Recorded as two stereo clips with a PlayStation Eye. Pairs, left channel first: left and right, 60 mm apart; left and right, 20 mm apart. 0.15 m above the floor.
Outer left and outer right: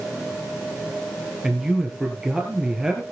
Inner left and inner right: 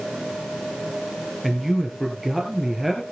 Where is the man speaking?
10° right (ahead or behind), 3.5 m.